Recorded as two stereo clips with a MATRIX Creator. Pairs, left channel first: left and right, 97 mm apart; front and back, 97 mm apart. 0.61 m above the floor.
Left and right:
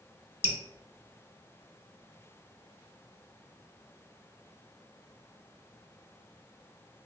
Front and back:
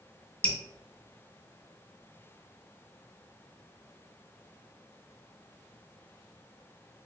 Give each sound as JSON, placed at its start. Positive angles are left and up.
{"t": 0.4, "sound": "dripping", "azimuth_deg": 75, "distance_m": 0.7}